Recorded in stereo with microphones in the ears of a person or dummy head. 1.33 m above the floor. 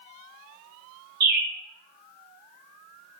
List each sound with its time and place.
1.2 s a bird: 55° right (ahead or behind), 1.0 m